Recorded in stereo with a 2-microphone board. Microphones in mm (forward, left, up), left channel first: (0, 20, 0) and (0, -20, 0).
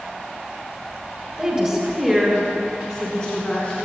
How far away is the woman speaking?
About 1.4 m.